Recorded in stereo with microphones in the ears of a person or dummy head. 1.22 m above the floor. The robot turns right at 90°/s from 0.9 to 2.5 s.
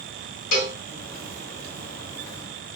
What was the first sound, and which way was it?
A cowbell, 65° left (ahead or behind).